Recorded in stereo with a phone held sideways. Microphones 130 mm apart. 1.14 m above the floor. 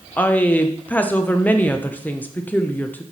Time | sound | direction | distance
0.2 | a woman speaking | 10° left (ahead or behind) | 0.6 m